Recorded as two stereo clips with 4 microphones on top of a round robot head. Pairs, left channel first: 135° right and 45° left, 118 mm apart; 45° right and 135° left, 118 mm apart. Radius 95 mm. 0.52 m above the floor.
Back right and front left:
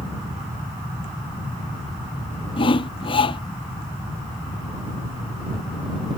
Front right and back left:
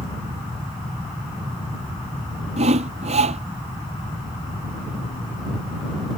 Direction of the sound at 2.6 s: 175° left.